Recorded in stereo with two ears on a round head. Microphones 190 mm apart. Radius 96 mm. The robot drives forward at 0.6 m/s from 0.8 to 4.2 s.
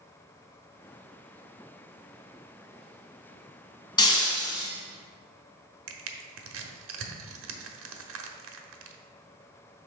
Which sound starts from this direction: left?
Breaking glass, at 4.0 s.